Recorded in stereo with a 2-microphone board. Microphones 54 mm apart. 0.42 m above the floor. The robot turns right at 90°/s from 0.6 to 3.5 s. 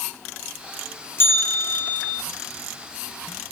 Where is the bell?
85° left, 1.7 m; by 2.2 s straight behind, 1.7 m.